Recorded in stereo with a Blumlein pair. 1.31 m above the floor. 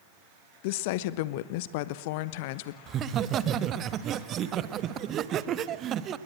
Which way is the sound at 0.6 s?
50° left.